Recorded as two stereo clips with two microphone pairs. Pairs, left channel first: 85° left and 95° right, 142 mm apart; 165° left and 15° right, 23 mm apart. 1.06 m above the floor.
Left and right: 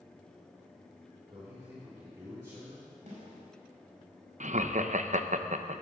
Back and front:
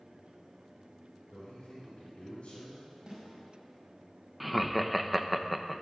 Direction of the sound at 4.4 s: 100° right.